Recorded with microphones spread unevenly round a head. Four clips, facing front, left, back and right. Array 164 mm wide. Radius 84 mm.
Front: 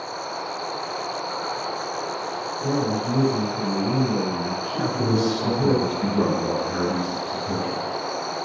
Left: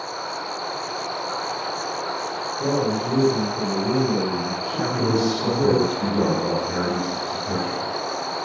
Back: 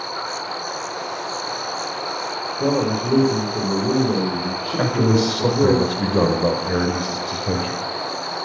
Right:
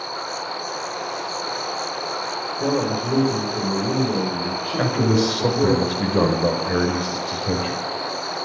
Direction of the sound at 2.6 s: 170° right.